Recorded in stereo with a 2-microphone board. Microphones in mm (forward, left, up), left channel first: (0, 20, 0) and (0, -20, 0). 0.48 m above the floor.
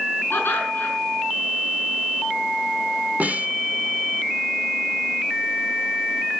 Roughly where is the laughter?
Left.